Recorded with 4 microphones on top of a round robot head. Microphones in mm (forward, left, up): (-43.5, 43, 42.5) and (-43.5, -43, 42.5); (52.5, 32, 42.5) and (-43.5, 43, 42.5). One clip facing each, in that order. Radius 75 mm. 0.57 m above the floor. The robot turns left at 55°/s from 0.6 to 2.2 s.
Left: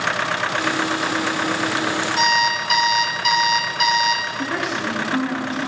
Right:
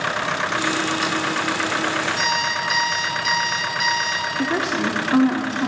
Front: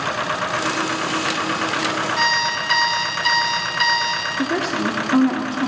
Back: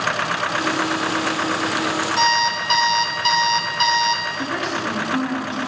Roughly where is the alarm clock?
Behind left.